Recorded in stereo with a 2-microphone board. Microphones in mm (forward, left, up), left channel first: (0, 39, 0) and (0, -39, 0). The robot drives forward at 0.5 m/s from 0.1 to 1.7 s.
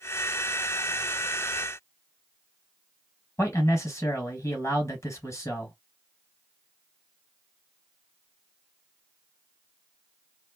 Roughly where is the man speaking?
Left.